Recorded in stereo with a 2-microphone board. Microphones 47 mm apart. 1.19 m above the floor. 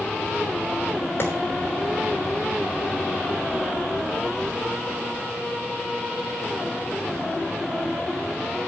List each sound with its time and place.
1.2 s a clap: 50° left (ahead or behind), 3.5 m